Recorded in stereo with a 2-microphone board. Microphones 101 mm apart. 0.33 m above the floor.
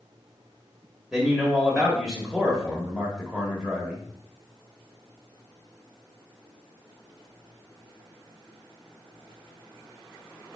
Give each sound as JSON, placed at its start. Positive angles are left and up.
{"t": 1.1, "sound": "a man speaking", "side_deg": -5, "distance_m": 1.0}